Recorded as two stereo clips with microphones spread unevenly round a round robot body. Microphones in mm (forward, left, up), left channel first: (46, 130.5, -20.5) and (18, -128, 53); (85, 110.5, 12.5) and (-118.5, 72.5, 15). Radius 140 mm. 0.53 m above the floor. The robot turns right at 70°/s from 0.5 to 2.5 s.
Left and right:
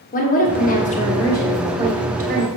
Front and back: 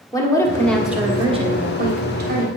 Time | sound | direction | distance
0.1 | a woman speaking | 80° left | 1.5 m